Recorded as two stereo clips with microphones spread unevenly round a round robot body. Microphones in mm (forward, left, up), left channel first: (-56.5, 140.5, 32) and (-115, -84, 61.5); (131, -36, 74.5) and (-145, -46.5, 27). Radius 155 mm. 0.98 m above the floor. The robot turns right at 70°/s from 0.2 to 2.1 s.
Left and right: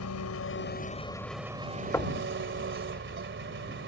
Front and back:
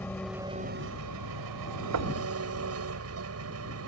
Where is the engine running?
85° left; by 3.9 s 140° right.